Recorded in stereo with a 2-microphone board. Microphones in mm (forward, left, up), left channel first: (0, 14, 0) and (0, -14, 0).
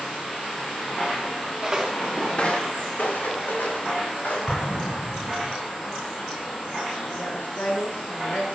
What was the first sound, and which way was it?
Footsteps, 25° right (ahead or behind).